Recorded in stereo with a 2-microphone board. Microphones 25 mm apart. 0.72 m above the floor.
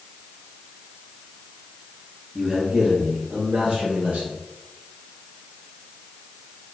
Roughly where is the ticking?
I don't hear ticking.